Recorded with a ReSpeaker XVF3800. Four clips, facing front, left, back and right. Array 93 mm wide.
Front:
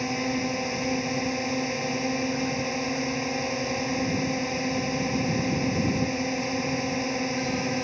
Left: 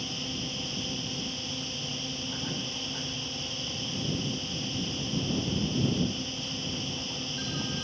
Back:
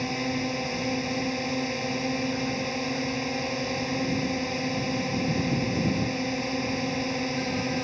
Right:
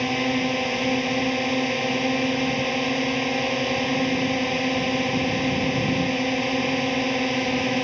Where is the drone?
80° right.